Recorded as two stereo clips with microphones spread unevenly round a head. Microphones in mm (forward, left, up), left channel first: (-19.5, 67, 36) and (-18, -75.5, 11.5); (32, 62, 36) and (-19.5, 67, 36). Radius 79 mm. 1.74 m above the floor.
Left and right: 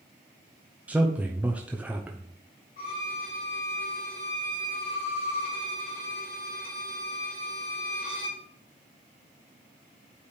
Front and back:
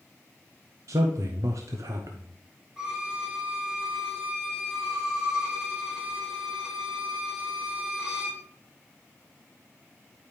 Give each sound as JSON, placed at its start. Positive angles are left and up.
{"t": 0.9, "sound": "a man speaking", "azimuth_deg": -175, "distance_m": 0.6}
{"t": 2.8, "sound": "a violin", "azimuth_deg": 100, "distance_m": 2.5}